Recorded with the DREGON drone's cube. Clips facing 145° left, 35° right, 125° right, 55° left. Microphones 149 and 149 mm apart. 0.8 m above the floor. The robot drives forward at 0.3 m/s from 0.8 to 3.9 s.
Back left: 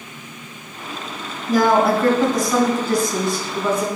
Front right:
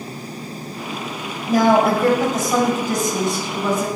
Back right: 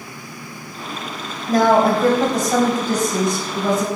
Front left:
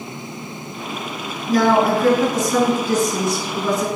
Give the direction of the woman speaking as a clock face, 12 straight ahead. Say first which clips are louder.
Front right 1 dB, back right 1 dB; 3 o'clock.